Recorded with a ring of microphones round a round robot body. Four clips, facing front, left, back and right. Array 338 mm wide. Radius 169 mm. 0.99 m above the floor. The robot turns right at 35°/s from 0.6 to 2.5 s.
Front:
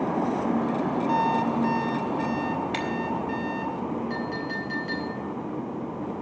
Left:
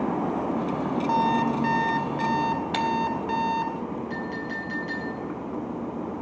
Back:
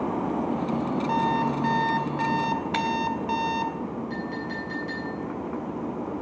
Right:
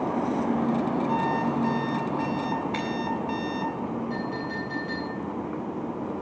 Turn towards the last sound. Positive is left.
turn(degrees=60)